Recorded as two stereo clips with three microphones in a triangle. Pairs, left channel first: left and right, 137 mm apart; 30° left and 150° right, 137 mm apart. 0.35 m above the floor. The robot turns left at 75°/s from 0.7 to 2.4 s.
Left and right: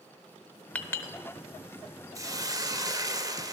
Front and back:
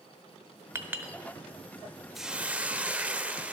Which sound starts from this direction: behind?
A clink, at 0.8 s.